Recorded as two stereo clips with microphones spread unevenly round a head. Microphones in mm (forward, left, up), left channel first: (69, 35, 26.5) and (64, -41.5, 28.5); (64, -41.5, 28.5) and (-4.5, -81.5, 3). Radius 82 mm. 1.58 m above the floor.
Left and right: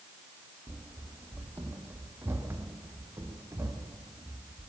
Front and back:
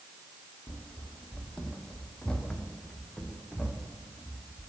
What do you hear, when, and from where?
0.7 s running footsteps: 35° right, 2.5 m; by 4.7 s 40° right, 5 m